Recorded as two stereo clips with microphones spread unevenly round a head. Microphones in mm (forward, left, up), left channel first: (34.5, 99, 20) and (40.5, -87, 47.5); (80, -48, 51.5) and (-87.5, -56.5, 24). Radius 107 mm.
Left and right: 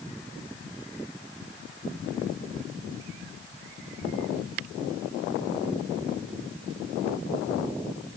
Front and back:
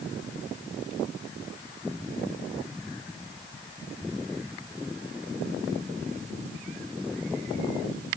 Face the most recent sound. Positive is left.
No sound to turn to.